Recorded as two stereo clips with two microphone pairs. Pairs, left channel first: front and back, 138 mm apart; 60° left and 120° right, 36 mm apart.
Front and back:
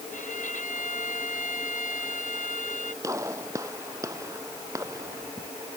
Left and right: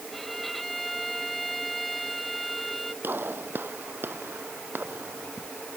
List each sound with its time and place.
0.1 s a violin: 25° right
3.0 s a gunshot: 115° right